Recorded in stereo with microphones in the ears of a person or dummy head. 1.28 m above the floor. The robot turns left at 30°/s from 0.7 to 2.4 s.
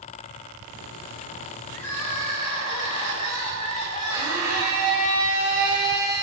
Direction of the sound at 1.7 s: 10° left (ahead or behind).